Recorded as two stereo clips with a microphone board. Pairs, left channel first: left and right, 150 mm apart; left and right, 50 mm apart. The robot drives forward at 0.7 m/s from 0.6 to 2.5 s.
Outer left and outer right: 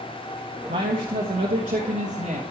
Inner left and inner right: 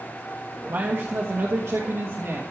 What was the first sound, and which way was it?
A man speaking, 55° right (ahead or behind).